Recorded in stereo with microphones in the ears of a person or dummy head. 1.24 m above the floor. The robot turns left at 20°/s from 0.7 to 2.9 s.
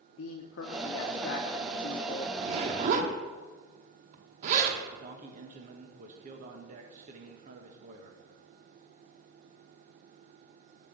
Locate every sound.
0.2 s a man speaking: 85° left, 1.0 m; by 2.3 s 55° left, 1.0 m
2.4 s a zipper: 30° right (ahead or behind), 1.0 m; by 4.8 s 40° right (ahead or behind), 1.0 m
4.9 s a man speaking: 55° right (ahead or behind), 1.6 m